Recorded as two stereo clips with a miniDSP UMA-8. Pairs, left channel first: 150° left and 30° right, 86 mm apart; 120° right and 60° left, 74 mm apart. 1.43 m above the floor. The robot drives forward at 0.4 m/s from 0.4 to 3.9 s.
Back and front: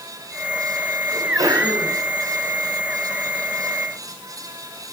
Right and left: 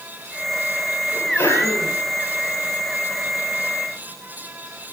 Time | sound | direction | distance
1.1 | a sneeze | 65° right | 4.5 m